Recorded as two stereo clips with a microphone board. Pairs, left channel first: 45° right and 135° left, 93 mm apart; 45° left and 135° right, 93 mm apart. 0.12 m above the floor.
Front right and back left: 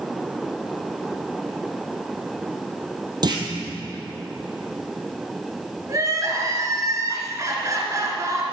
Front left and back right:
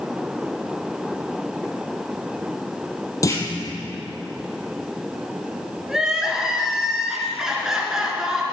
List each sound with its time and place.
3.2 s a clunk: 95° left, 1.8 m
5.9 s crying: 145° left, 1.8 m